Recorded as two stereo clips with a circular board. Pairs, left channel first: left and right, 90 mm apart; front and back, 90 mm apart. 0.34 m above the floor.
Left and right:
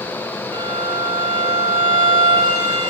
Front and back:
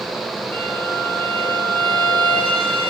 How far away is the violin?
About 4 m.